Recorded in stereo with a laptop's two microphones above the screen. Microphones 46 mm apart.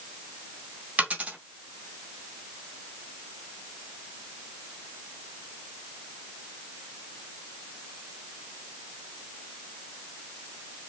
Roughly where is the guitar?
I don't hear a guitar.